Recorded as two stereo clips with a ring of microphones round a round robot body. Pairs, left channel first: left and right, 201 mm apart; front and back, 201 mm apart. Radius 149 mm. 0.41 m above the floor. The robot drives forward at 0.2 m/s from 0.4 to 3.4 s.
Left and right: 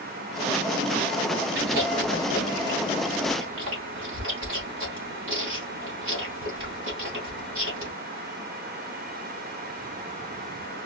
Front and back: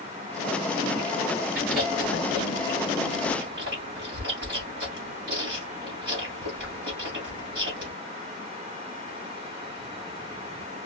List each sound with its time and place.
1.6 s chewing: 135° right, 2.5 m; by 7.9 s 140° right, 2.5 m